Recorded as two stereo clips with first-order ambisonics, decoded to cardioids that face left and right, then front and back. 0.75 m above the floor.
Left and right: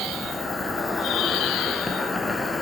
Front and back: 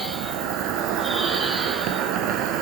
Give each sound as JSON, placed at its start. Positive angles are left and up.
{"t": 0.0, "sound": "an insect", "azimuth_deg": 170, "distance_m": 1.1}